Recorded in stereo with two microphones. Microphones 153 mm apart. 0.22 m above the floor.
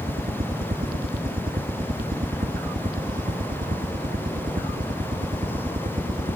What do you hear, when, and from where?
0.0 s a helicopter: 60° right (ahead or behind); by 6.4 s 55° right (ahead or behind)